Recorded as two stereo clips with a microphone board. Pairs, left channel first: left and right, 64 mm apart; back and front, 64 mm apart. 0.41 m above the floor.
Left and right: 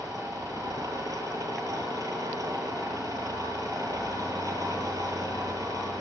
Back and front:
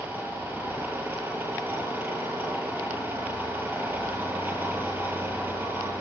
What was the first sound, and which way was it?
An engine running, 60° right.